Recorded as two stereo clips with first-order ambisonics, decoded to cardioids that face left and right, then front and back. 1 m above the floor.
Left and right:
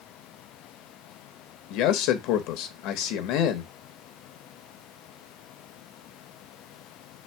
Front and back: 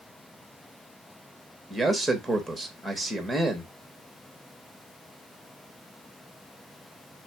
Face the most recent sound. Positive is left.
turn(degrees=90)